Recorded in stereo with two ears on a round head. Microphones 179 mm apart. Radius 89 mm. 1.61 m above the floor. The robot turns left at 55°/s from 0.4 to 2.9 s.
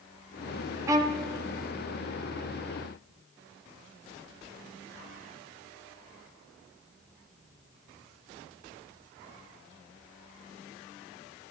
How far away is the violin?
About 0.7 m.